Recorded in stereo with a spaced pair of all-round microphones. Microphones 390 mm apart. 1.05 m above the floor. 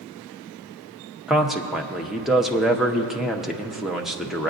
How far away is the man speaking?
About 0.8 m.